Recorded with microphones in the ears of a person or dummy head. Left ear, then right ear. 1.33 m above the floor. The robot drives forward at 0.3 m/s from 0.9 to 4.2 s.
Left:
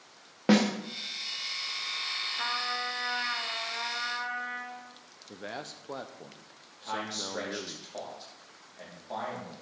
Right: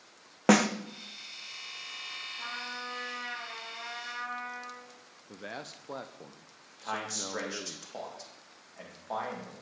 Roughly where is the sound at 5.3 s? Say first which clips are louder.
Left 2 dB; centre.